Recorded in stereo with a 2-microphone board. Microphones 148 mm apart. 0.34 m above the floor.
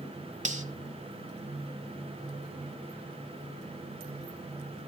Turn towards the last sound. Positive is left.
turn(degrees=-50)  # may be behind; listen again after turning